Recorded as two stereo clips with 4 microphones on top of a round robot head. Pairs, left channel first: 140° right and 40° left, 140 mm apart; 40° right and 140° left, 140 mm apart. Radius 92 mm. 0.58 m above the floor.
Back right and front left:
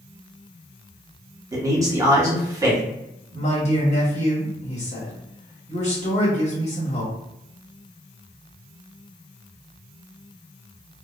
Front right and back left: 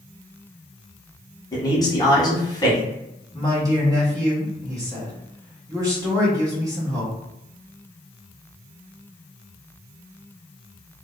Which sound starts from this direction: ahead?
A man speaking, at 1.5 s.